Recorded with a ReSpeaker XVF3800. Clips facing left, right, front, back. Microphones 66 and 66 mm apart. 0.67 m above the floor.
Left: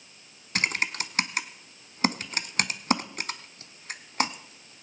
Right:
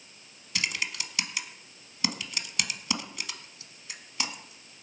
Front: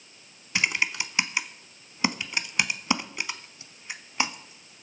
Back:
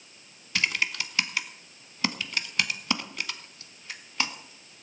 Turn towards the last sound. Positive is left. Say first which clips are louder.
# left 5 dB, front 2 dB
turn(degrees=65)